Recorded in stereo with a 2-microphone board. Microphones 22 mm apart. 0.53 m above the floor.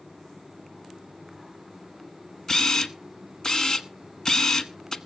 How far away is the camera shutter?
About 0.9 m.